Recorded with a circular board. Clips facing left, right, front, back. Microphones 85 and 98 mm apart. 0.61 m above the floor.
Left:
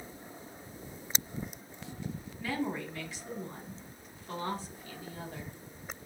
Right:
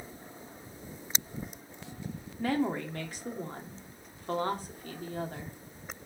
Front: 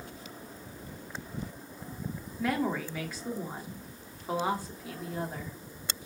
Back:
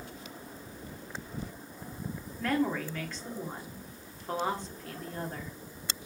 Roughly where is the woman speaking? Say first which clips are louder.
Right 5 dB, back 1 dB; right.